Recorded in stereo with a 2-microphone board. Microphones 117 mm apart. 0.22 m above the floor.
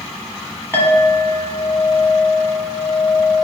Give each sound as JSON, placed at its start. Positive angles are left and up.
{"t": 0.7, "sound": "a clink", "side_deg": 20, "distance_m": 1.3}